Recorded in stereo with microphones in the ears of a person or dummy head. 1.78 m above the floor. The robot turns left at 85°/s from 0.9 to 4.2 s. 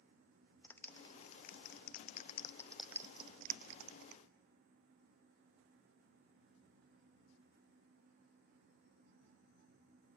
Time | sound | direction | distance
0.6 | a clap | 15° left (ahead or behind) | 0.6 m